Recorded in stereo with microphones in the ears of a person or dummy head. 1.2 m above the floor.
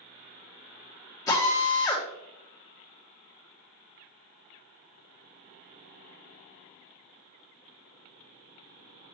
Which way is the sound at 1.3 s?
20° left (ahead or behind).